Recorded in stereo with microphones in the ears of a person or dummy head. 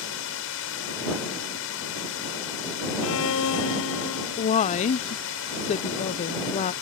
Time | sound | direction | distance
0.0 | a drone | 70° left (ahead or behind) | ?
3.0 | a violin | 75° left (ahead or behind) | ?
4.4 | a woman speaking | 35° left (ahead or behind) | ?